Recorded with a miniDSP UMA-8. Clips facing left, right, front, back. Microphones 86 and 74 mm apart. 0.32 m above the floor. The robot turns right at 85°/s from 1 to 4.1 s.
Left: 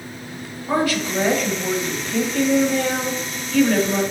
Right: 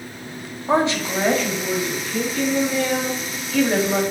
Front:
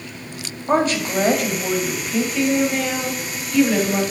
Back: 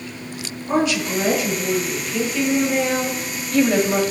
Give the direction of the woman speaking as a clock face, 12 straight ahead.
1 o'clock.